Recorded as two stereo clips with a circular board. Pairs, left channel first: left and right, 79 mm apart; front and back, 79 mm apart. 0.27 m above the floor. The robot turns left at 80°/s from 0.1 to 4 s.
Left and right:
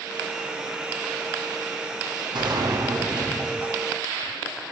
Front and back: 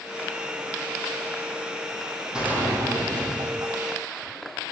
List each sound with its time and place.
2.3 s a gunshot: 100° right, 4 m; by 4.3 s 130° left, 4 m